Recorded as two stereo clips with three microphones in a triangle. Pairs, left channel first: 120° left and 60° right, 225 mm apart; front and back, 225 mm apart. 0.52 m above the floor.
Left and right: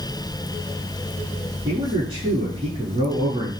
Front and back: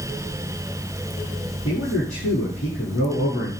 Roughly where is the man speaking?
Ahead.